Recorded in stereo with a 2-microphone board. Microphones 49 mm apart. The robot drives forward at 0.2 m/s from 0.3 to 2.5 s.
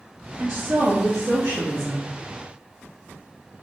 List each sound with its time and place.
0.4 s a woman speaking: 55° right (ahead or behind), 1.2 m